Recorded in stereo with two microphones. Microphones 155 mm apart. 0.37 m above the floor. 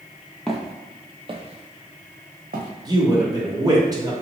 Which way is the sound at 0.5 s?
5° left (ahead or behind).